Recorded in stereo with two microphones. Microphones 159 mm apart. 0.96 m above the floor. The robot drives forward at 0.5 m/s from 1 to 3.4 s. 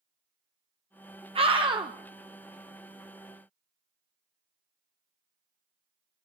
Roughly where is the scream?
Right.